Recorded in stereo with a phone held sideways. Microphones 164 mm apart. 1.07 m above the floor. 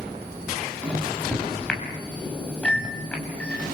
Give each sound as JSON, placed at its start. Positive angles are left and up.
{"t": 0.8, "sound": "a microwave", "side_deg": 5, "distance_m": 7.0}